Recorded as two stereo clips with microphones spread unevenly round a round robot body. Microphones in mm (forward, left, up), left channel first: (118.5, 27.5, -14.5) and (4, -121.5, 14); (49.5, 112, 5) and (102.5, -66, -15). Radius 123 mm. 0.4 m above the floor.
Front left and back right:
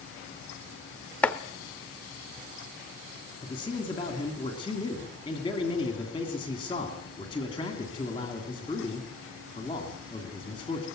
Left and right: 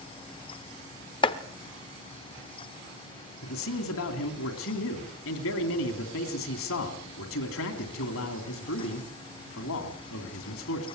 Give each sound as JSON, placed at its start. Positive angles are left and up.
{"t": 1.2, "sound": "chopping", "azimuth_deg": 90, "distance_m": 0.9}
{"t": 3.4, "sound": "a man speaking", "azimuth_deg": 120, "distance_m": 3.0}